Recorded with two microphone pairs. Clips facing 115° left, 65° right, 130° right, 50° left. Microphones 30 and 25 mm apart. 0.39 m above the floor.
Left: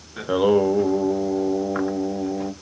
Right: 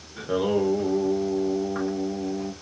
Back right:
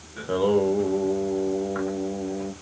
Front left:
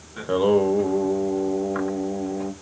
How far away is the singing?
About 0.5 m.